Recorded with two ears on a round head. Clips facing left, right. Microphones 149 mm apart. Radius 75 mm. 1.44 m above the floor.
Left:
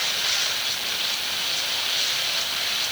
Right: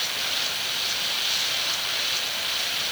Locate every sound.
Only background noise.